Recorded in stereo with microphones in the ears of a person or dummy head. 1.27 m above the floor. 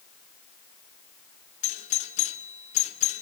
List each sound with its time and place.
1.6 s a doorbell: 45° left (ahead or behind), 1.5 m